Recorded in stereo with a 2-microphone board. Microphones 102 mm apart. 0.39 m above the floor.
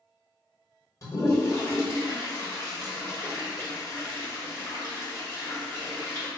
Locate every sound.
1.0 s a toilet flushing: 35° left (ahead or behind), 1.4 m